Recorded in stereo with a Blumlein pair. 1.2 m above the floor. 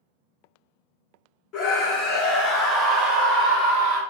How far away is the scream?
About 1.2 m.